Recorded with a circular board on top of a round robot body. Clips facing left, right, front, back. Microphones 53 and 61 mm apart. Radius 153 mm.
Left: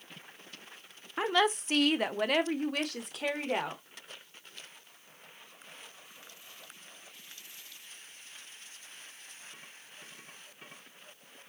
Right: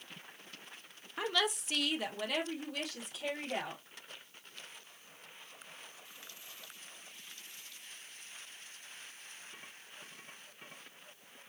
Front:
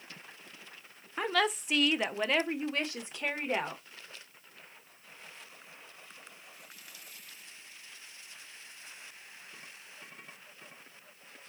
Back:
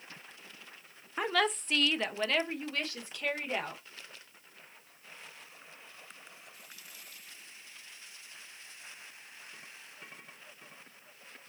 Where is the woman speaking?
105° left, 0.7 m; by 3.8 s 65° left, 1.8 m.